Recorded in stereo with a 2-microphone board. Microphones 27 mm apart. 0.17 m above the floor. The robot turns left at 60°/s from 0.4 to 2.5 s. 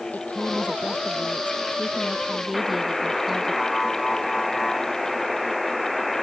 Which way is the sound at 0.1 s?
125° left.